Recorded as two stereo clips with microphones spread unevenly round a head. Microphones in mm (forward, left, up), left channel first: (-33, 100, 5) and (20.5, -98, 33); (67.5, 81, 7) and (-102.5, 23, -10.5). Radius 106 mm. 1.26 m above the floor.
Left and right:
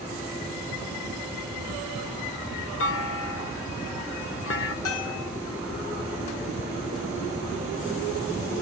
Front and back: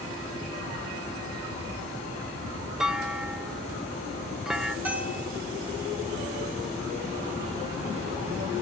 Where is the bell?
120° left, 6.5 m.